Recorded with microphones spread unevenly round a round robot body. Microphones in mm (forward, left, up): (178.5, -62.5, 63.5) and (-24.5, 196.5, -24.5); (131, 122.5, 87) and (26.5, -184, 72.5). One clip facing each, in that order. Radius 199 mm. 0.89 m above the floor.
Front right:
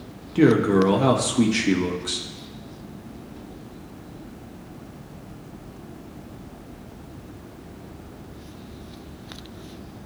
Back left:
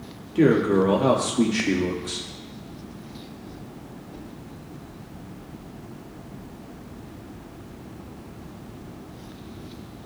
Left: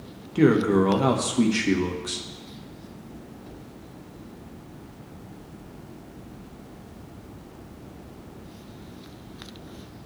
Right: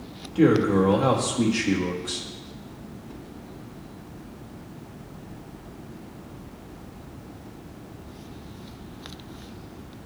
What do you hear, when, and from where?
0.3 s a man speaking: 20° left, 1.2 m